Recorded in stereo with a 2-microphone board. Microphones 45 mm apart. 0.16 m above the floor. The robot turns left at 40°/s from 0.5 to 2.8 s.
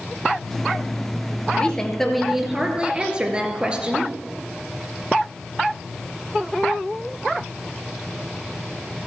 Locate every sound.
1.5 s a woman speaking: 25° left, 2.5 m; by 4.1 s 25° right, 2.5 m